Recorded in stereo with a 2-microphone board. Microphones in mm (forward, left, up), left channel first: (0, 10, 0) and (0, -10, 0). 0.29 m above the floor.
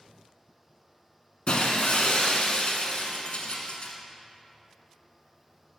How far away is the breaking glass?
About 0.9 m.